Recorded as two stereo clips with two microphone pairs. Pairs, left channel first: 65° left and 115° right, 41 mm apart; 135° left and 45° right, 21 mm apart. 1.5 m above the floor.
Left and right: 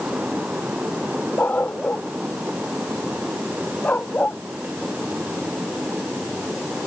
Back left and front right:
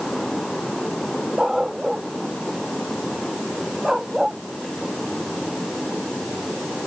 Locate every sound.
1.4 s a dog barking: 20° left